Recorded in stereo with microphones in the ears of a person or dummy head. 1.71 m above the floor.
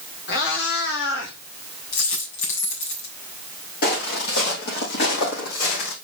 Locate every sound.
0.3 s a cat meowing: 65° left (ahead or behind), 2.5 m
1.9 s a dropped coin: 70° left (ahead or behind), 3.5 m
3.8 s footsteps: 55° left (ahead or behind), 3.5 m; by 5.9 s 65° left (ahead or behind), 4.5 m